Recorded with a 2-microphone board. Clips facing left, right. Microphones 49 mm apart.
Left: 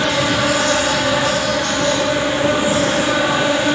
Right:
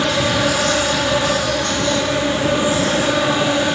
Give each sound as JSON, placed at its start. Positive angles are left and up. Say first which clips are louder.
{"t": 0.0, "sound": "an insect", "louder": "left 1 dB", "side_deg": 15, "distance_m": 9.0}